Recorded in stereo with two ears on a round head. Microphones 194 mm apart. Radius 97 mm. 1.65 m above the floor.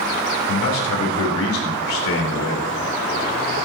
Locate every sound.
0.5 s a man speaking: 80° left, 4.5 m